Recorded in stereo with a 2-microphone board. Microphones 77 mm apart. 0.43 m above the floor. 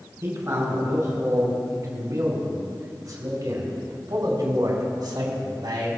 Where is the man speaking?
40° right (ahead or behind), 5.5 m; by 5.9 s 70° right (ahead or behind), 3.5 m.